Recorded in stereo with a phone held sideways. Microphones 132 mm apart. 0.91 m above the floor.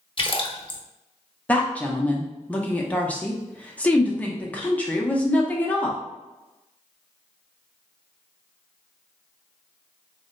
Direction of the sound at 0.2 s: 40° left (ahead or behind).